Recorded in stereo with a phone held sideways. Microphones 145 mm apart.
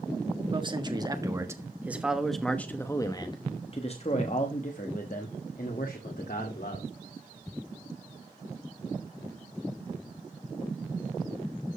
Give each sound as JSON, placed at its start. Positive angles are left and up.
{"t": 0.5, "sound": "a man speaking", "side_deg": -35, "distance_m": 1.6}